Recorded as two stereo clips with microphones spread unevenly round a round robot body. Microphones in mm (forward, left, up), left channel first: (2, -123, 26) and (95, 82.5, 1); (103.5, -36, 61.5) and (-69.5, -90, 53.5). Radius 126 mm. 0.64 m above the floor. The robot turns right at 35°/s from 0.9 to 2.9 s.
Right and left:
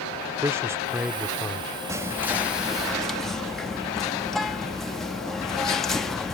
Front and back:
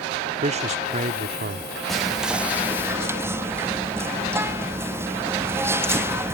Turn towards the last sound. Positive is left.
turn(degrees=145)